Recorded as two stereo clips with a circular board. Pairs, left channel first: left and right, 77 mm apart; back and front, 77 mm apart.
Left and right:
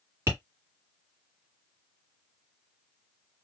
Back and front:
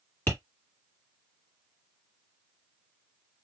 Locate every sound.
0.3 s tapping: 130° right, 2 m